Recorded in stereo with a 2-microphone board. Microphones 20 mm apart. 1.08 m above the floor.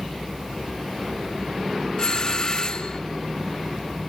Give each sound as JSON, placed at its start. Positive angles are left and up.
{"t": 2.0, "sound": "a doorbell", "side_deg": 40}